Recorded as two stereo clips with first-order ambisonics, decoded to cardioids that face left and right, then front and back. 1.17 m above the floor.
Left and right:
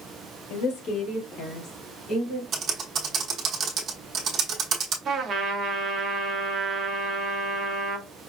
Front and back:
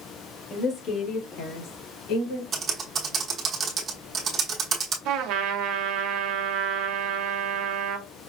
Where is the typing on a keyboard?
130° right, 0.9 m.